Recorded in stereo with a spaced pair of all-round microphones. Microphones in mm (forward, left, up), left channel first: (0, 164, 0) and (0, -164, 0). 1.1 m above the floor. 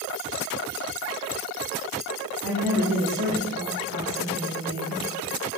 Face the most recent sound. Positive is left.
turn(degrees=-70)  # may be behind; listen again after turning